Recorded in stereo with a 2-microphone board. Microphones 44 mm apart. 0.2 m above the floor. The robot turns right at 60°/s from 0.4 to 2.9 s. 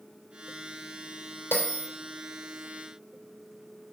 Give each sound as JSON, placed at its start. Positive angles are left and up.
{"t": 1.5, "sound": "a bell", "side_deg": 60, "distance_m": 3.0}